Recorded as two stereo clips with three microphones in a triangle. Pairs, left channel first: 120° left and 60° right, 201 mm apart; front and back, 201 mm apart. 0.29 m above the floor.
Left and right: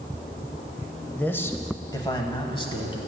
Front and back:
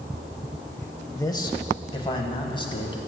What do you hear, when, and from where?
1.1 s a man speaking: 45° left, 0.9 m; by 3.0 s 60° left, 1.8 m